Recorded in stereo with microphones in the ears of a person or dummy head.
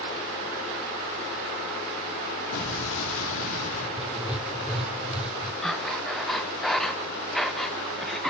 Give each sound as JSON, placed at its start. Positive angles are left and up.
{"t": 2.5, "sound": "an explosion", "side_deg": 80, "distance_m": 3.0}
{"t": 4.0, "sound": "writing", "side_deg": 0, "distance_m": 1.3}
{"t": 5.6, "sound": "breathing", "side_deg": 0, "distance_m": 1.2}